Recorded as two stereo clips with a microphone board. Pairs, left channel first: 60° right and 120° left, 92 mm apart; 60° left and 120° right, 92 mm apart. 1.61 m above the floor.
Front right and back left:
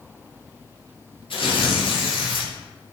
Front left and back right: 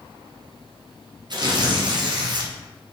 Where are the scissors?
No scissors in this recording.